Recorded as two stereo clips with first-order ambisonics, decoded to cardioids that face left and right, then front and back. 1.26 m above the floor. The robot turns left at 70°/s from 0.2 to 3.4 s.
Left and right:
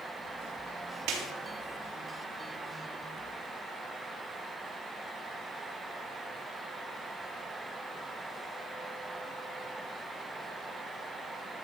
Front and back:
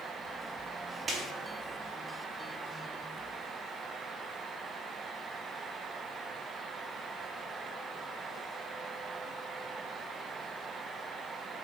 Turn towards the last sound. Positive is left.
turn(degrees=90)